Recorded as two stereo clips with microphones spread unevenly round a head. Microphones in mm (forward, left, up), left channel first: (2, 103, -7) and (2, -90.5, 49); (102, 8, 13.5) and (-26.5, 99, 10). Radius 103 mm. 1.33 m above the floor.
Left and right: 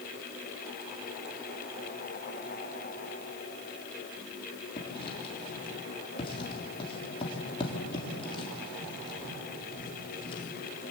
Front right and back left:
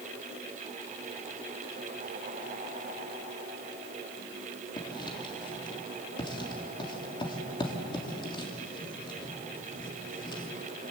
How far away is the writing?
About 3 m.